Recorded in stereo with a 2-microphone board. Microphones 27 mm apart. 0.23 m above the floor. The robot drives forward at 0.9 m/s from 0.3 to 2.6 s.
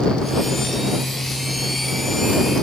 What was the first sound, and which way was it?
Only background noise.